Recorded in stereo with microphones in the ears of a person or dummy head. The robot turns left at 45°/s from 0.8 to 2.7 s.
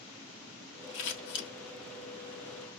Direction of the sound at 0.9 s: 55° left (ahead or behind).